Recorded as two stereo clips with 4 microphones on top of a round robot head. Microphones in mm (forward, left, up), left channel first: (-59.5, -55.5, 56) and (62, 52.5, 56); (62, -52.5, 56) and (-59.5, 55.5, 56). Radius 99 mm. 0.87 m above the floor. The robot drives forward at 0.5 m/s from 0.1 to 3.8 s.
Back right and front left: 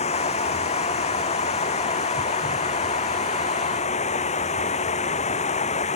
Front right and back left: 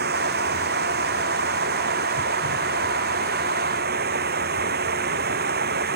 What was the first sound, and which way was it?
Running water, 170° left.